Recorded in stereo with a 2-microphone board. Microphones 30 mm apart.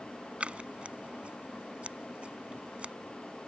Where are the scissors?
45° right (ahead or behind).